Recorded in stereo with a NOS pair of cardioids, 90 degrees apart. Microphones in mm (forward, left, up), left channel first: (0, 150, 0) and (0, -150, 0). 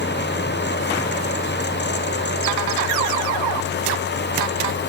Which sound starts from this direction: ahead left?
A fan, at 0.0 s.